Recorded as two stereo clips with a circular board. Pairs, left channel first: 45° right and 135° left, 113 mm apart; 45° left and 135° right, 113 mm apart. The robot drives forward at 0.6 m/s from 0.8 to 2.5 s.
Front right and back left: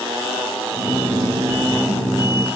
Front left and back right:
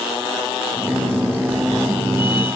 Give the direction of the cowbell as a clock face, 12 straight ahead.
I don't hear a cowbell.